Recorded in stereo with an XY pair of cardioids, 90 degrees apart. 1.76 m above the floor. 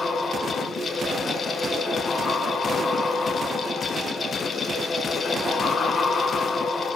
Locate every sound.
0.0 s a fan: 35° left, 2 m